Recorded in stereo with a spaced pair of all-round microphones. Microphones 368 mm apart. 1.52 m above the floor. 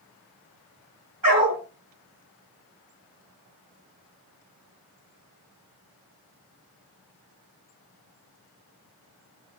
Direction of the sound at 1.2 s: 55° right (ahead or behind).